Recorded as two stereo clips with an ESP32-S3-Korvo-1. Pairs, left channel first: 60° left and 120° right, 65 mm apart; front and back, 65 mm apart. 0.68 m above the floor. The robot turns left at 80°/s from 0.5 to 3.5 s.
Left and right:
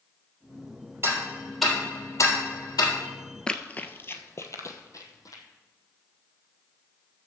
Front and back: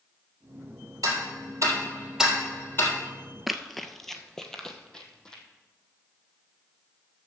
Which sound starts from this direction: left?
Running footsteps, at 3.5 s.